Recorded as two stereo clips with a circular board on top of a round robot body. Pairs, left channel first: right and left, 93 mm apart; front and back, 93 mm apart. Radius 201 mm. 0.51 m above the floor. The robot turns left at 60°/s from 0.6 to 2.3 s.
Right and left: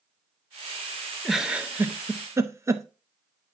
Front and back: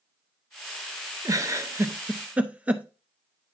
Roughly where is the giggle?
Behind.